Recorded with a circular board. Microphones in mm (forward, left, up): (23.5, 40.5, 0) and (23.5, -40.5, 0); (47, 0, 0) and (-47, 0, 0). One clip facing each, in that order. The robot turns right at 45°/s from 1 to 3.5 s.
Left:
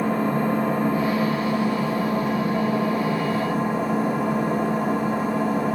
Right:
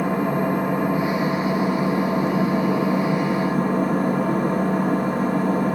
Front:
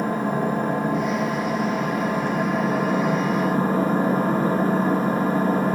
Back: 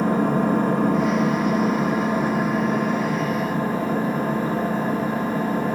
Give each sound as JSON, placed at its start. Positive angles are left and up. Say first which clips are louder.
{"t": 0.0, "sound": "an engine running", "louder": "right 1 dB, back 3 dB", "azimuth_deg": -165, "distance_m": 1.5}